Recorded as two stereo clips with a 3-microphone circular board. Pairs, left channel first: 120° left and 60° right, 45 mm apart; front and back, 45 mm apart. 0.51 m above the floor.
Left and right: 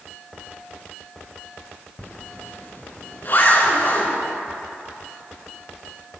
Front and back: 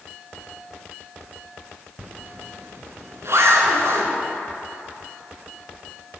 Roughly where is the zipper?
Behind.